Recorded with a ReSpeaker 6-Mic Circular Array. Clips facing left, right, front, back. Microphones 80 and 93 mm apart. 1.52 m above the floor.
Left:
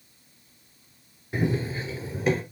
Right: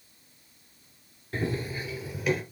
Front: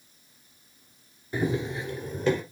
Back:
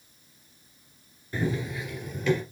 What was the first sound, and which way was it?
Running footsteps, 50° left.